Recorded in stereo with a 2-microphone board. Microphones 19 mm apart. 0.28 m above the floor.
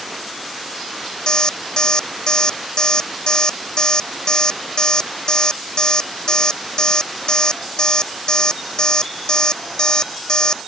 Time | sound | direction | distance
1.3 | an alarm clock | 35° left (ahead or behind) | ?